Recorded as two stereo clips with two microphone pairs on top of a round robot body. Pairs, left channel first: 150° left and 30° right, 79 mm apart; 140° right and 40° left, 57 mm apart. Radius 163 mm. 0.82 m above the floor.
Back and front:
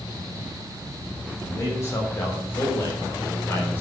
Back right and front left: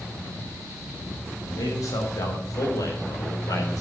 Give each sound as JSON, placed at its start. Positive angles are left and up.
{"t": 1.4, "sound": "a man speaking", "azimuth_deg": -155, "distance_m": 6.0}